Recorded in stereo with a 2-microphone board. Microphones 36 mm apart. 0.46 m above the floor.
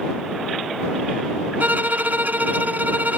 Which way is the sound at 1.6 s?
55° right (ahead or behind).